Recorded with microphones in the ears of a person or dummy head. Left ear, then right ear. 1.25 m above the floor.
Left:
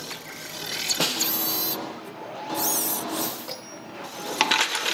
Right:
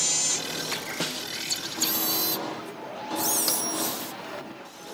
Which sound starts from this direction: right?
A bell, at 3.5 s.